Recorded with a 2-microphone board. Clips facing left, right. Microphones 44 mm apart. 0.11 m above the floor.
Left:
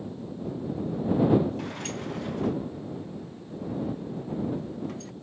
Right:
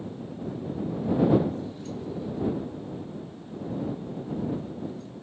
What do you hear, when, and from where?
1.6 s a sliding door: 75° left (ahead or behind)